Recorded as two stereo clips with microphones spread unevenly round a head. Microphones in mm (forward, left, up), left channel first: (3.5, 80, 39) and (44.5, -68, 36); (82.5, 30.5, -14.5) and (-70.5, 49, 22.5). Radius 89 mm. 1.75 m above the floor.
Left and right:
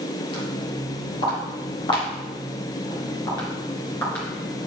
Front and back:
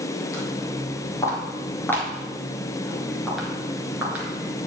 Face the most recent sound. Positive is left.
turn(degrees=-175)